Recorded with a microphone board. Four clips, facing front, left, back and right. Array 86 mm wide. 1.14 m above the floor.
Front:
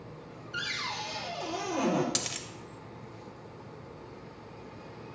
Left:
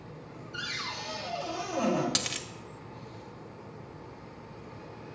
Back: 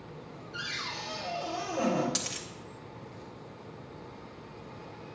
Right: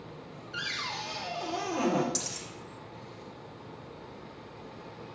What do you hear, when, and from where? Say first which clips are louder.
0.5 s a cupboard door: right 2 dB, front 3 dB; 70° right, 3 m
2.1 s a dropped coin: left 3 dB, front 1 dB; 75° left, 0.8 m